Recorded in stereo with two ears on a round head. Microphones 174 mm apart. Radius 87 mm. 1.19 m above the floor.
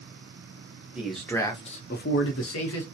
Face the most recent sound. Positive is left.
turn(degrees=85)